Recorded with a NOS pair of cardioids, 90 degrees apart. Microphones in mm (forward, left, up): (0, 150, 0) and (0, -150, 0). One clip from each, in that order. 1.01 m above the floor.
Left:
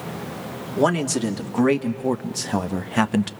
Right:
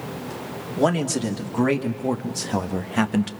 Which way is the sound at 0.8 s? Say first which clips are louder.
Left 1 dB; 15° left.